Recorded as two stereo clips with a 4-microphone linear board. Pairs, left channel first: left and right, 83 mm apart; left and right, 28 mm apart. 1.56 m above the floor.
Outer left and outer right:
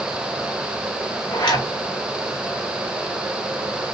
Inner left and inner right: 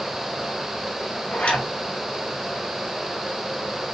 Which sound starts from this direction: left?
A zipper, at 1.3 s.